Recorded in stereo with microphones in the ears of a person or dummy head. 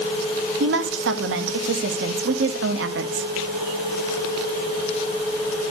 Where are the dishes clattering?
I don't hear dishes clattering.